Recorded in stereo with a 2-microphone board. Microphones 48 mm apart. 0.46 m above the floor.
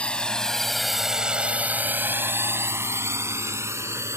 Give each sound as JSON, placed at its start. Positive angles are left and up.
{"t": 0.0, "sound": "a drone", "side_deg": 20}